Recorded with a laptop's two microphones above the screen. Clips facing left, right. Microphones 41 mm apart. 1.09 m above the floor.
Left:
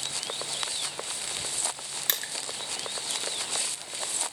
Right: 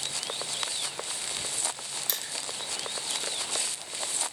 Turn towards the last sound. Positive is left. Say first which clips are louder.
# left 6 dB
turn(degrees=55)  # may be behind; listen again after turning